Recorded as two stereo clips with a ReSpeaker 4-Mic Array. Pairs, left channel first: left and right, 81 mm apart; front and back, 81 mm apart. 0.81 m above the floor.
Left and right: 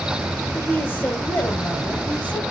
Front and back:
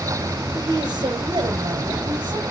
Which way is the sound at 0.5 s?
155° left.